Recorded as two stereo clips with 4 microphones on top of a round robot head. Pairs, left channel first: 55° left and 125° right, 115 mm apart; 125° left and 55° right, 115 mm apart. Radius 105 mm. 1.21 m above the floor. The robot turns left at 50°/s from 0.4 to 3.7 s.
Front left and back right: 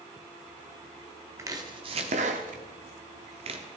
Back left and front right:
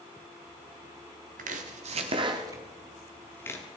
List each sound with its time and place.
1.4 s chopping: 60° right, 1.2 m; by 3.6 s 170° right, 1.2 m